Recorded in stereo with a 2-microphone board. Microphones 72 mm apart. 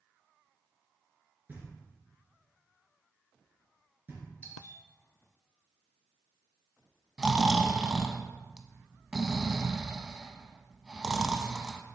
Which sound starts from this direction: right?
Knocking, at 1.5 s.